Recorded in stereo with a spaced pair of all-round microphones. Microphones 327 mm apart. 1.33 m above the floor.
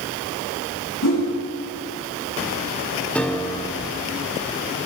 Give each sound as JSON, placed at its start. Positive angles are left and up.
{"t": 1.0, "sound": "a whoosh", "side_deg": 65, "distance_m": 3.0}
{"t": 3.1, "sound": "a piano", "side_deg": 5, "distance_m": 0.9}